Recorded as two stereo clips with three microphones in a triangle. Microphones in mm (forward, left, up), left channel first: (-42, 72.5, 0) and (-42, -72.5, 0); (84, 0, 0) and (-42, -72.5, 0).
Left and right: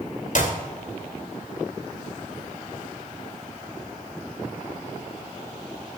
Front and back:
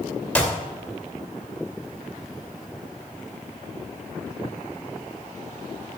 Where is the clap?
110° left, 2.5 m.